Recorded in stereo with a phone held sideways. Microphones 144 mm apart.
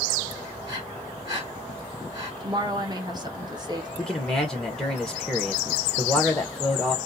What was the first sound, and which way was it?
Breathing, 30° right (ahead or behind).